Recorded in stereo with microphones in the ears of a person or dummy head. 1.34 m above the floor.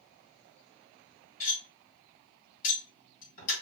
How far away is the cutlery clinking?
About 1.2 m.